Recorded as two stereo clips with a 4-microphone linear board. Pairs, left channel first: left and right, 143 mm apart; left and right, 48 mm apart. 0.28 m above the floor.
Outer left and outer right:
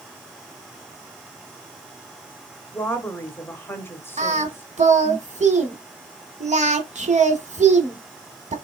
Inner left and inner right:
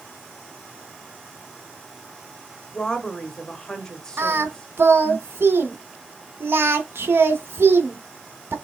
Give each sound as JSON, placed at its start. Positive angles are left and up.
{"t": 2.7, "sound": "a woman speaking", "side_deg": 15, "distance_m": 0.9}
{"t": 4.2, "sound": "singing", "side_deg": -55, "distance_m": 0.9}